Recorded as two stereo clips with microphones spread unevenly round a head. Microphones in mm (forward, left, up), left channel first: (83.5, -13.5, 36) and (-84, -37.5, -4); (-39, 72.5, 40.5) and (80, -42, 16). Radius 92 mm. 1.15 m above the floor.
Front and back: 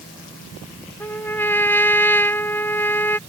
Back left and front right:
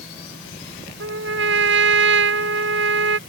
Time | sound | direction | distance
1.0 | a trumpet | 70° right | ?